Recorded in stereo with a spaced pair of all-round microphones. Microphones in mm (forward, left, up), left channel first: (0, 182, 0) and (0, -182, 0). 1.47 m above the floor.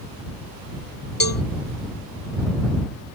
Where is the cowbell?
60° left (ahead or behind).